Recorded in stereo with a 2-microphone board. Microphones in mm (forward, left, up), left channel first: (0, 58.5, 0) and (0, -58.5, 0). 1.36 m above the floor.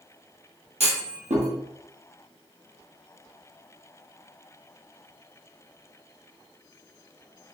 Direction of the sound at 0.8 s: 70° right (ahead or behind).